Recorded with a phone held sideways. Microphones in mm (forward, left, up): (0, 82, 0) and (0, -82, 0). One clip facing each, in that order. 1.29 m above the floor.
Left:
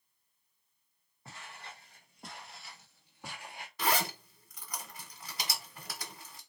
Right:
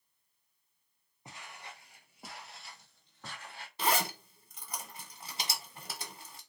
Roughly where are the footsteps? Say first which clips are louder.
Even; centre.